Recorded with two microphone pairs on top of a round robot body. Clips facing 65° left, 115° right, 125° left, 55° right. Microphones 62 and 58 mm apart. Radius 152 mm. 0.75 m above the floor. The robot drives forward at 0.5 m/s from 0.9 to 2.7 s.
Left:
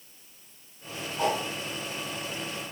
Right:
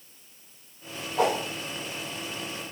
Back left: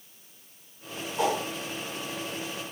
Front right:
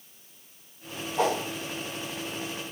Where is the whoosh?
105° right, 2.5 m.